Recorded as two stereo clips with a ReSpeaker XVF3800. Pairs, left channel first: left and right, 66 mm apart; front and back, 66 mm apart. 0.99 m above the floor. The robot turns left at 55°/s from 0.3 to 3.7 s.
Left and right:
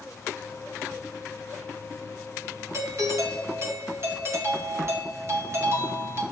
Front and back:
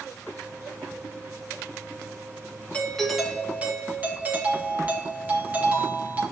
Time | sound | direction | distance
2.7 | a doorbell | 65° right | 1.6 m